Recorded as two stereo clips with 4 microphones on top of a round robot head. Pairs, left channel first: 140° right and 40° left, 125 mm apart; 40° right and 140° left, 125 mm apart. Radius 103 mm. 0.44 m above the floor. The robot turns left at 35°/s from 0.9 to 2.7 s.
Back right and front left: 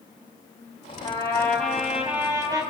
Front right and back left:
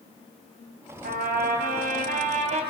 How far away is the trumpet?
About 3.5 m.